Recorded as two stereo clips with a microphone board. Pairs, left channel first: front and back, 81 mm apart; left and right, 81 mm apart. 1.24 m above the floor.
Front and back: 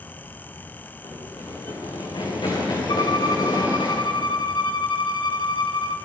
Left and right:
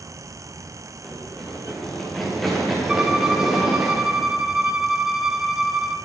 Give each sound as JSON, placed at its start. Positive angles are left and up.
{"t": 1.0, "sound": "running footsteps", "azimuth_deg": 10, "distance_m": 7.0}
{"t": 2.9, "sound": "a violin", "azimuth_deg": -10, "distance_m": 1.3}